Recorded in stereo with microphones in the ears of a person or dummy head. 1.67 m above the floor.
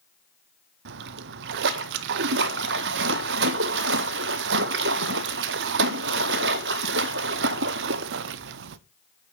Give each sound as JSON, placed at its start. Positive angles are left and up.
{"t": 0.8, "sound": "a splash", "side_deg": -65, "distance_m": 0.6}